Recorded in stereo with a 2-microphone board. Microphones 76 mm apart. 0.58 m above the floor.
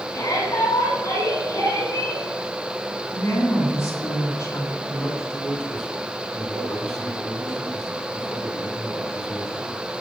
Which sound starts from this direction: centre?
A man speaking, at 4.9 s.